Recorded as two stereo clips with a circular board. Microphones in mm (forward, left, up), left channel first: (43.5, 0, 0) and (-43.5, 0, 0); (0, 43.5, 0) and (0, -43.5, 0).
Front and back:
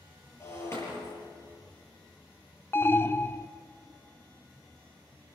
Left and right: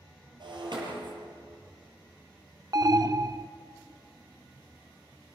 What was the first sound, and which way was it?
Breaking glass, 55° right.